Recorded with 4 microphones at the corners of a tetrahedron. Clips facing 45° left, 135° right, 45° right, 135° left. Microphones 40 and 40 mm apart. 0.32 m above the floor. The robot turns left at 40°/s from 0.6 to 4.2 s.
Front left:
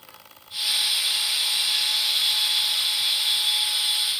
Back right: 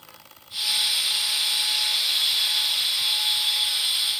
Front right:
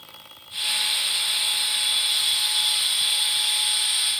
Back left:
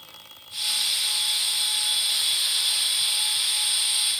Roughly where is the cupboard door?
I don't hear a cupboard door.